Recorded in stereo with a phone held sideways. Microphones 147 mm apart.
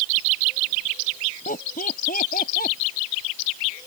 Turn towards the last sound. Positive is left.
turn(degrees=85)